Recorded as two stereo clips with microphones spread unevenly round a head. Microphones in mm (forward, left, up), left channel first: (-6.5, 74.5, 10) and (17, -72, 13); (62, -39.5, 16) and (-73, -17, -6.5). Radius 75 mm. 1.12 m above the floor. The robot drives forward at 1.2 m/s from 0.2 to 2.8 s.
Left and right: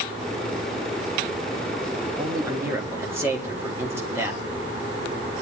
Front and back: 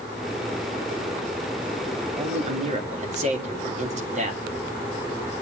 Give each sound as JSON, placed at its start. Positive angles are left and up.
{"t": 2.2, "sound": "a man speaking", "azimuth_deg": -145, "distance_m": 1.6}